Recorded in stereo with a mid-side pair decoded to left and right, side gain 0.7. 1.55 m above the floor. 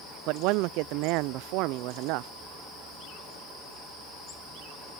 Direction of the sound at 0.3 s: 65° right.